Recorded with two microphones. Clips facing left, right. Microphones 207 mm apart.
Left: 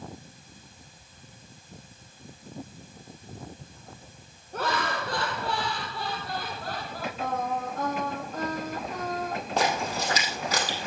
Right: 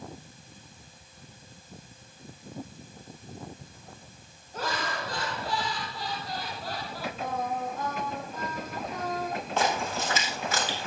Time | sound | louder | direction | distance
4.5 | laughter | left 3 dB | 70° left (ahead or behind) | 4 m
7.2 | singing | left 2 dB | 70° left (ahead or behind) | 6.5 m
9.6 | a splash | left 1 dB | 40° left (ahead or behind) | 4 m